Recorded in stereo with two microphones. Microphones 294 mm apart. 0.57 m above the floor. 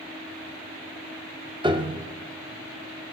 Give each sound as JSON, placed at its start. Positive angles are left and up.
{"t": 1.6, "sound": "a piano", "side_deg": -15, "distance_m": 0.6}